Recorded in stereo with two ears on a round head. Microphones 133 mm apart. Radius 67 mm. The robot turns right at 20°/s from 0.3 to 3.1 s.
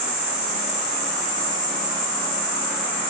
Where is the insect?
130° right, 1.5 m; by 3.1 s 75° right, 1.5 m.